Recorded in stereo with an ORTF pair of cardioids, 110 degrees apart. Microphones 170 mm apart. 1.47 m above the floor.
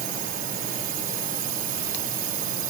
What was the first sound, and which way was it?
A drone, 60° right.